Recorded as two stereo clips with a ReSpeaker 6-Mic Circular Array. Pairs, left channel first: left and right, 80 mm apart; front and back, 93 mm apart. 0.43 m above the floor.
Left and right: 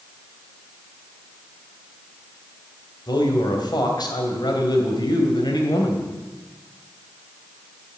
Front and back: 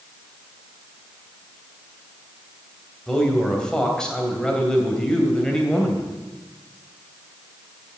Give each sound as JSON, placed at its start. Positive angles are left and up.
{"t": 3.1, "sound": "a man speaking", "azimuth_deg": 80, "distance_m": 2.5}